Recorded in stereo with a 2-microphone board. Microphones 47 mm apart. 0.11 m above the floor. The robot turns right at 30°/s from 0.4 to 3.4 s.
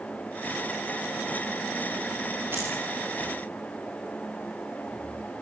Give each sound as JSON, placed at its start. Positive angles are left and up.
{"t": 2.5, "sound": "keys jangling", "side_deg": -50, "distance_m": 9.5}